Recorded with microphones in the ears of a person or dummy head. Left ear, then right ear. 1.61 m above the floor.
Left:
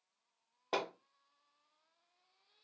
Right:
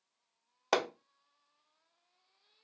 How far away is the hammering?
About 0.5 m.